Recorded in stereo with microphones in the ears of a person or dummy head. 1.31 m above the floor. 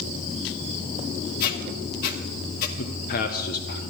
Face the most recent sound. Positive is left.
turn(degrees=50)  # may be behind; listen again after turning